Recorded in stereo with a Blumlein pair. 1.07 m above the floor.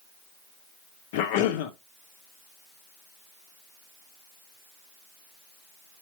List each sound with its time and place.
1.1 s a cough: 50° left, 0.8 m